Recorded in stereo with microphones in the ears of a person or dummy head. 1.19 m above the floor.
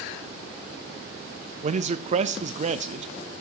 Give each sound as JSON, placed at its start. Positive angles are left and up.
{"t": 1.6, "sound": "a man speaking", "side_deg": -40, "distance_m": 0.8}